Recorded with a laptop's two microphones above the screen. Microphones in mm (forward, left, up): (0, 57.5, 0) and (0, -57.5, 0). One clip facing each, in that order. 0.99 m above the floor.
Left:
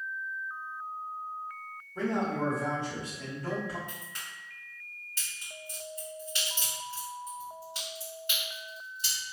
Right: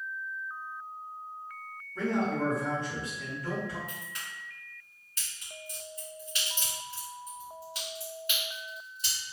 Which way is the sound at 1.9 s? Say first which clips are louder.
Right 1 dB; 20° left (ahead or behind).